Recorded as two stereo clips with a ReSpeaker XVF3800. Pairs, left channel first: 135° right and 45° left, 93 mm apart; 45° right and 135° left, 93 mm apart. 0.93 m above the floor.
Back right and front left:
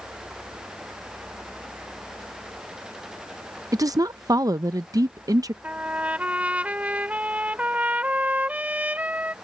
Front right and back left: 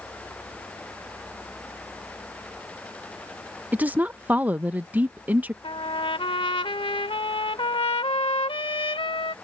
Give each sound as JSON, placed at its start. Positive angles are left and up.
{"t": 3.7, "sound": "a woman speaking", "azimuth_deg": 70}
{"t": 5.6, "sound": "a trumpet", "azimuth_deg": -30}